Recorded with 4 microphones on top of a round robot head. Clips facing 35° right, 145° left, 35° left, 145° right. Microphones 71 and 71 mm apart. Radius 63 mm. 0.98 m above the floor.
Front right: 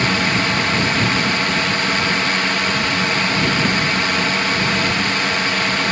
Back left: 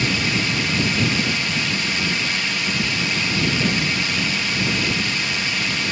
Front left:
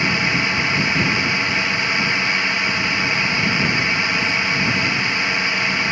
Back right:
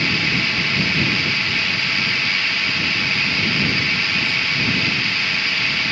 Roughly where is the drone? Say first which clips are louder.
Front right 4 dB, front left 2 dB; ahead right.